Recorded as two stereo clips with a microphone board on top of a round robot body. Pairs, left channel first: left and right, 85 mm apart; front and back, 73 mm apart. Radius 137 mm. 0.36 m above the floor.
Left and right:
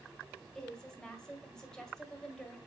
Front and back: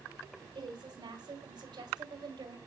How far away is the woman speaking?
About 3 m.